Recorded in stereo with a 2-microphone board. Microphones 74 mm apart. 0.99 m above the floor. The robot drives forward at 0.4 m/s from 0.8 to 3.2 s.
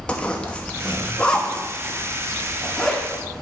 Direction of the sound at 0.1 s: 20° left (ahead or behind).